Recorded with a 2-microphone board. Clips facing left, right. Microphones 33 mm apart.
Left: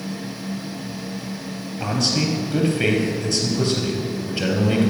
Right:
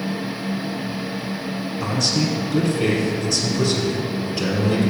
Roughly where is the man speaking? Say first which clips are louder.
Left 1 dB; left.